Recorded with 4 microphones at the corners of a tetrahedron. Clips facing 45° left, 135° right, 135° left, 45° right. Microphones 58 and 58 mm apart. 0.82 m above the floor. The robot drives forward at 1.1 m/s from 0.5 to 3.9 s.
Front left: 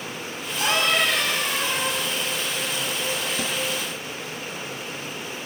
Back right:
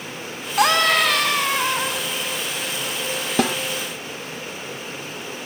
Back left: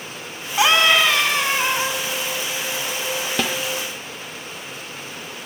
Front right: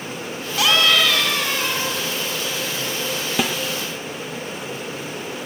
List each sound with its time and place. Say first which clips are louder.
0.6 s a scream: back right 5 dB, back left 2 dB; 160° right, 6 m
3.4 s a snare drum: back right 8 dB, front right 2 dB; 130° right, 0.8 m; by 3.6 s 135° right, 1.0 m